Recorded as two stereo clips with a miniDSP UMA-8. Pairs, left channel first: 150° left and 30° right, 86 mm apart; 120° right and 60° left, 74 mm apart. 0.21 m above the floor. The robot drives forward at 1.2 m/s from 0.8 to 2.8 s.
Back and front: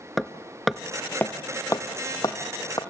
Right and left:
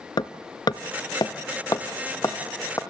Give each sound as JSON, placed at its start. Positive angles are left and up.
{"t": 0.2, "sound": "hammering", "azimuth_deg": -120, "distance_m": 0.7}